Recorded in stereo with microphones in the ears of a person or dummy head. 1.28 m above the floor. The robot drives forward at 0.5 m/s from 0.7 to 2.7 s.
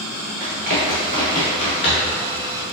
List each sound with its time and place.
0.4 s running footsteps: 50° right (ahead or behind), 1.8 m; by 2.2 s 40° left (ahead or behind), 1.5 m